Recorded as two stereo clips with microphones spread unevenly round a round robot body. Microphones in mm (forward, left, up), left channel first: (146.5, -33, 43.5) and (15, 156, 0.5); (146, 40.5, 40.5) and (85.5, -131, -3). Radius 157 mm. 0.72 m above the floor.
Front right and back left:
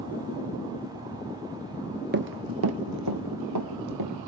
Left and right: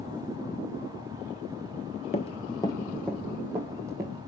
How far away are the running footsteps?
About 0.9 m.